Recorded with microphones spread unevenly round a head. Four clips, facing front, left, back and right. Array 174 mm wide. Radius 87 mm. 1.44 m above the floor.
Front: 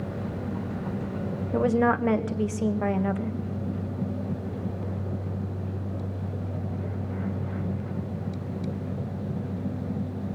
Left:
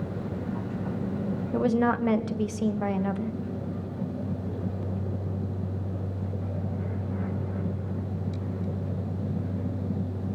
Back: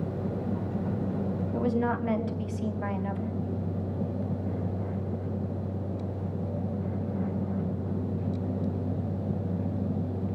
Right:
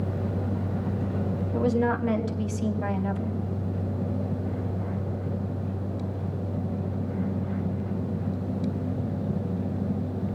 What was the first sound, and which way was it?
A woman speaking, 30° left.